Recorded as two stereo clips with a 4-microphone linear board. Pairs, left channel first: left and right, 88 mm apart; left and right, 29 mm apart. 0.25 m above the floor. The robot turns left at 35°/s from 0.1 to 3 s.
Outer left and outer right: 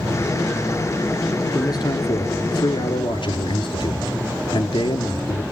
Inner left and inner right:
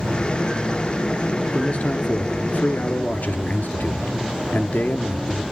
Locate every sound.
1.5 s a man speaking: 135° left, 3.5 m; by 5.4 s 85° left, 3.5 m